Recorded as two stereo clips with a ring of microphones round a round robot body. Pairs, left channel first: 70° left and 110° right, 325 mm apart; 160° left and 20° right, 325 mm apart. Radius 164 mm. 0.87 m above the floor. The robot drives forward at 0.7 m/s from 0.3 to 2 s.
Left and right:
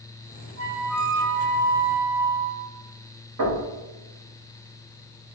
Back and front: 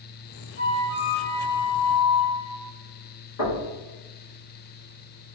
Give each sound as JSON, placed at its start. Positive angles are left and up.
{"t": 0.6, "sound": "a flute", "azimuth_deg": -150, "distance_m": 1.1}
{"t": 3.4, "sound": "knocking", "azimuth_deg": -160, "distance_m": 1.4}